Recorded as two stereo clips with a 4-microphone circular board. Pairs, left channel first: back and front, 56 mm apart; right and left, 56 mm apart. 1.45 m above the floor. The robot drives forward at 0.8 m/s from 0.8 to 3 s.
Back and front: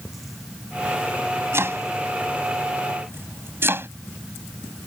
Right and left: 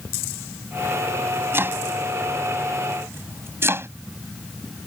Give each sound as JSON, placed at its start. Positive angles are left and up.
{"t": 1.5, "sound": "chopping", "azimuth_deg": 40}